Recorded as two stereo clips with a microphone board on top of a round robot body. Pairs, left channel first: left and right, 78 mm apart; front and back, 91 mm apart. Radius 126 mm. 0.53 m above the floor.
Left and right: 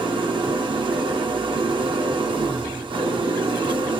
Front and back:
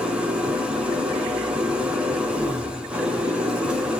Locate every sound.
0.0 s an engine running: 100° right, 1.1 m